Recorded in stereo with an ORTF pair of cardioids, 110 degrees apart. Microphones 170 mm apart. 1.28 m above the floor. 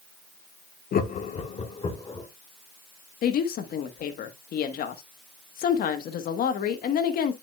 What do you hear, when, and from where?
0.9 s laughter: 60° left, 1.2 m; by 2.3 s 20° left, 1.9 m
3.2 s a woman speaking: 60° left, 1.4 m